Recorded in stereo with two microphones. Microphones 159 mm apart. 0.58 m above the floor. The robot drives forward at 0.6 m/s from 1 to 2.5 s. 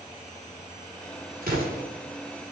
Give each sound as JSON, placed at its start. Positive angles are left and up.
{"t": 1.4, "sound": "an explosion", "side_deg": -65, "distance_m": 4.0}